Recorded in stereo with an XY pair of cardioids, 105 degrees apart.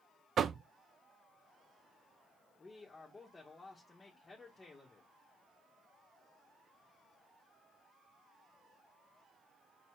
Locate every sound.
0.4 s knocking: 50° right, 0.5 m
2.6 s a man speaking: 25° left, 1.9 m